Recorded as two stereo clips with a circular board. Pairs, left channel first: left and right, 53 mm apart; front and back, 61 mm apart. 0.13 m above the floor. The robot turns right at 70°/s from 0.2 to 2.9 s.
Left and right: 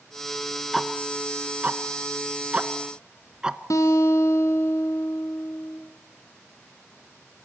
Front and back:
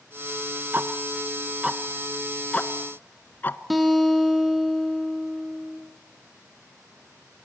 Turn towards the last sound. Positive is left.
turn(degrees=90)